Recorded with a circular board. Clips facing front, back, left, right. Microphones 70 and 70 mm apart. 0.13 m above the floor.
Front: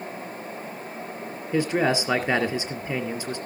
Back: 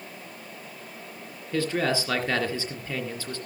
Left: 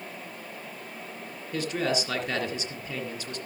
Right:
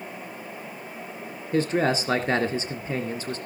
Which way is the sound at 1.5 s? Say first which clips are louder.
Front 3 dB, right 5 dB; 60° right.